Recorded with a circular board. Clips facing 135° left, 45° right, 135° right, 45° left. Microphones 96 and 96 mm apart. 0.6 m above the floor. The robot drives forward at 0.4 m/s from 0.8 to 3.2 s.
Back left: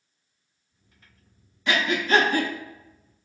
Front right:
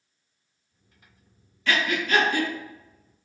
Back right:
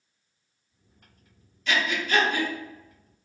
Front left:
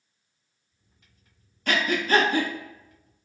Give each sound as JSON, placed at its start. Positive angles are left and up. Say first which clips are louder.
{"t": 1.7, "sound": "breathing", "louder": "back left 2 dB, front left 3 dB", "azimuth_deg": 70, "distance_m": 0.7}